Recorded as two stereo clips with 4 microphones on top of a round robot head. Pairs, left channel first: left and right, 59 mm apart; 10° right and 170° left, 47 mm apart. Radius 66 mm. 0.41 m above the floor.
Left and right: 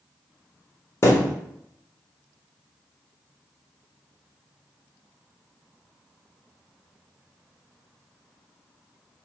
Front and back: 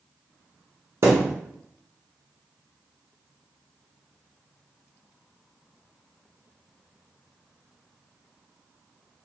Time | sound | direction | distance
1.0 | a thud | 135° left | 1.0 m